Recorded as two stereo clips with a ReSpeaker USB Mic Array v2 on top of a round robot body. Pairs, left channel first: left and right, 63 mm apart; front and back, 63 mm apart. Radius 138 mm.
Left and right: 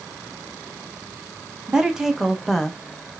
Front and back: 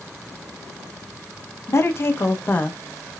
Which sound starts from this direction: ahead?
A woman speaking, at 1.7 s.